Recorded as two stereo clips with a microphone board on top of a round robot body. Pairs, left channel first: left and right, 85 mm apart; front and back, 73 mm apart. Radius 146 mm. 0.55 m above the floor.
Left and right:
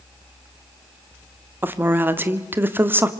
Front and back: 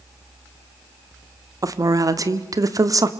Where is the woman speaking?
150° right, 1.8 m.